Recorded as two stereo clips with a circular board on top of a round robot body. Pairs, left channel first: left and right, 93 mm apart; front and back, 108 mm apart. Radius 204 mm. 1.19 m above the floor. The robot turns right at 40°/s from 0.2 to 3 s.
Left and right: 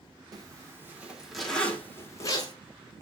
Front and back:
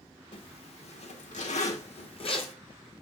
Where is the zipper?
40° right, 2 m; by 2.5 s 45° left, 2 m.